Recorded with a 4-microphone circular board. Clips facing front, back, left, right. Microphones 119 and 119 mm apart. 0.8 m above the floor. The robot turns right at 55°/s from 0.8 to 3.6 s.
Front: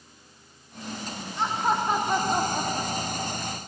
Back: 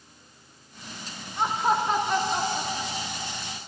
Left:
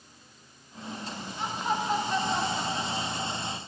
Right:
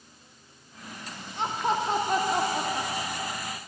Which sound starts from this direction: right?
Laughter, at 1.4 s.